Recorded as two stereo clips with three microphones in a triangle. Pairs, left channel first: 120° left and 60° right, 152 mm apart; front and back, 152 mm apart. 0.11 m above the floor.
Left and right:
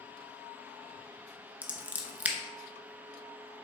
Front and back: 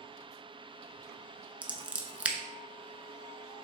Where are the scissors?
115° right, 0.6 m.